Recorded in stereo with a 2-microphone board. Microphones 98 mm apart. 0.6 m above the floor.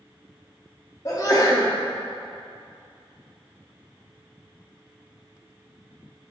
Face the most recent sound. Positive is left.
turn(degrees=35)  # may be behind; listen again after turning